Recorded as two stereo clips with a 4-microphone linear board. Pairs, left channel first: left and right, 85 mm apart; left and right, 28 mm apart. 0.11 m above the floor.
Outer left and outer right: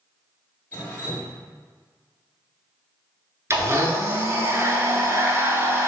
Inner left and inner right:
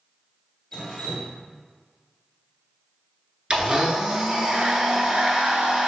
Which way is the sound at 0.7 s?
20° left (ahead or behind).